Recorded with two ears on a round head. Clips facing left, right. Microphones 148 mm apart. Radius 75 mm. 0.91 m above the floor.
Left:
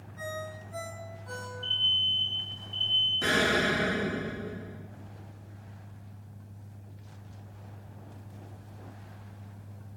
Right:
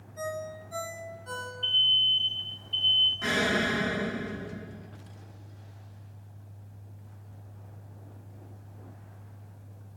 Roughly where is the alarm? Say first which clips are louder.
Right 2 dB; right.